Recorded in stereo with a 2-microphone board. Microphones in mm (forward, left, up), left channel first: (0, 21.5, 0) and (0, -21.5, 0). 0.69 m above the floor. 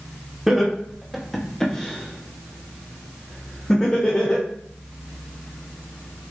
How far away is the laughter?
About 1.1 m.